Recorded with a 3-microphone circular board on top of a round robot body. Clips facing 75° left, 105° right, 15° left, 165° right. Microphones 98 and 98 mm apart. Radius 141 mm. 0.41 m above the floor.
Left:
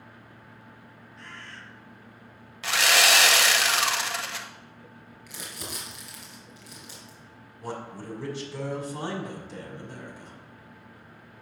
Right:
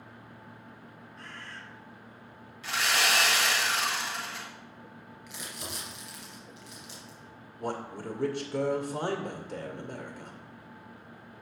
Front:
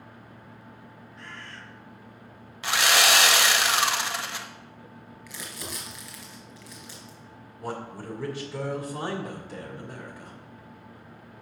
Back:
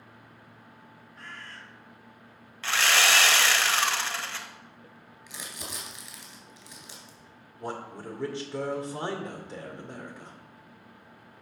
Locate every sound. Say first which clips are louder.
1.2 s a bird: left 1 dB, front 1 dB; 130° right, 2.0 m
2.6 s sawing: left 5 dB, front 2 dB; 90° left, 0.7 m
5.3 s crumpling: left 2 dB, front 2 dB; 130° left, 3 m
7.6 s a man speaking: right 2 dB, front 1 dB; 105° right, 2 m